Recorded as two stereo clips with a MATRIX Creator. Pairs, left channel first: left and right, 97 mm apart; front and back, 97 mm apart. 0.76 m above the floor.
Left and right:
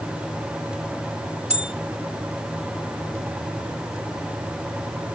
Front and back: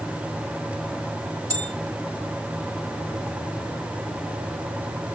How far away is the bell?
About 0.7 m.